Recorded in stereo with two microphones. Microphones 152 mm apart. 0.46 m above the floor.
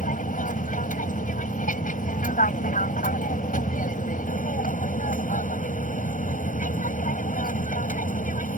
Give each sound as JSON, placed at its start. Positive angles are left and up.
{"t": 0.0, "sound": "an aircraft", "side_deg": 60}